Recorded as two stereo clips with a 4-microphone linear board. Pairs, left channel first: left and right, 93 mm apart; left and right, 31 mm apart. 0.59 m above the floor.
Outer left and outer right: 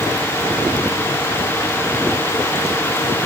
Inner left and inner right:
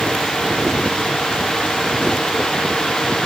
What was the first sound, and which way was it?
Only background noise.